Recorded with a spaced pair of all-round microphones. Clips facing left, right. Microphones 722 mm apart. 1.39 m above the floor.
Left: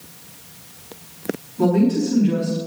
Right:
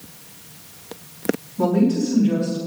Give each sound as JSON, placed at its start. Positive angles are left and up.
{"t": 1.6, "sound": "a woman speaking", "side_deg": -20, "distance_m": 3.5}